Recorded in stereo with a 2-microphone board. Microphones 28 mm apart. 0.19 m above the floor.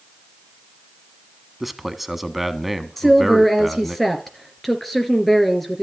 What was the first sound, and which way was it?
A man speaking, 5° right (ahead or behind).